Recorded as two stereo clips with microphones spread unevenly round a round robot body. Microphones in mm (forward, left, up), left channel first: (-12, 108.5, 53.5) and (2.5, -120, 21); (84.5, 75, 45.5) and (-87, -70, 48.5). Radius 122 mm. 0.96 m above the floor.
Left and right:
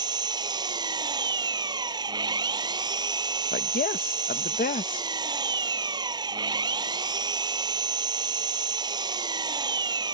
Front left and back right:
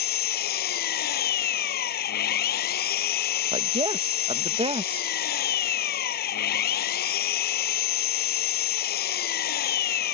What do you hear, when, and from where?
0.0 s an engine running: 10° right
3.5 s a woman speaking: 155° left